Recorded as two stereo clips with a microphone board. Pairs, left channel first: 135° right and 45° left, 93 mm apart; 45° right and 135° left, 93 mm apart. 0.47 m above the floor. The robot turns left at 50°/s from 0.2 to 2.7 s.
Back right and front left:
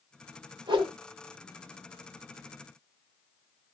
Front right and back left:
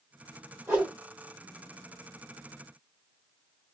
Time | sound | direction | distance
0.7 | a whoosh | 65° left | 1.3 m